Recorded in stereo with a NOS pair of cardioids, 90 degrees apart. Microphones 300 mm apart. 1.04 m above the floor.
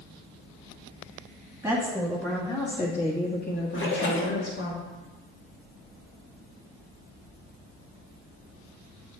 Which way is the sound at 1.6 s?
10° right.